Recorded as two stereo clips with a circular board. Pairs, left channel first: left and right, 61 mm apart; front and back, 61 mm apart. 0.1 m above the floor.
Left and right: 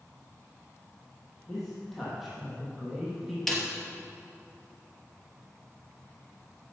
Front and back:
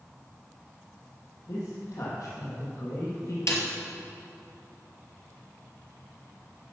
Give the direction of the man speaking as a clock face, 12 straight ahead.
12 o'clock.